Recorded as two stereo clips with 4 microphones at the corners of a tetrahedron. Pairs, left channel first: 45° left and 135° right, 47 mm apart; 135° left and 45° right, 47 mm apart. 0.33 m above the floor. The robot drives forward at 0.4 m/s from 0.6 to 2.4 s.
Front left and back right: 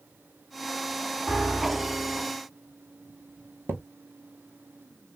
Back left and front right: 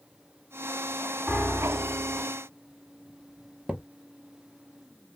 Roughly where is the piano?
Right.